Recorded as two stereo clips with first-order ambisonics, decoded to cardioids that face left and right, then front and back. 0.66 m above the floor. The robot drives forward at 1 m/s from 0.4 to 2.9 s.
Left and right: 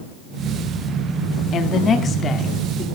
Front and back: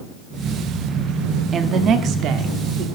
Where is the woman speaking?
125° left, 1.2 m; by 2.9 s 160° left, 2 m.